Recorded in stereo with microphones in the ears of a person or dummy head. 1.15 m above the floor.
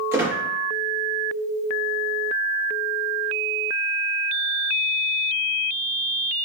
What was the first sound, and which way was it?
A squeak, 15° right (ahead or behind).